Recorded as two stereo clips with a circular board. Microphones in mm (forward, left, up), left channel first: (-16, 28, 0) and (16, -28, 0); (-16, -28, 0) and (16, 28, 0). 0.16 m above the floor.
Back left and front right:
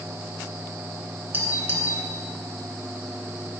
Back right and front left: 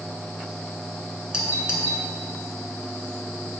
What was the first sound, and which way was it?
A doorbell, 10° right.